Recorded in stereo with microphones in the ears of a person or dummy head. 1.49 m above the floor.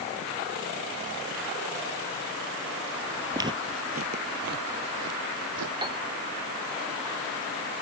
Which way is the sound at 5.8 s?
25° right (ahead or behind).